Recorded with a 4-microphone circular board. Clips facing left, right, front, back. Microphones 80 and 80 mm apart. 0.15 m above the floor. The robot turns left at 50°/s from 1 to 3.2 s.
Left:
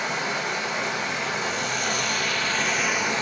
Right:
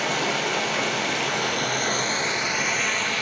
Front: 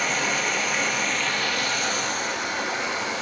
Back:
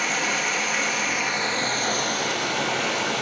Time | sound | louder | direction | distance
0.0 | running water | right 2 dB, even | 90° right | 1.5 m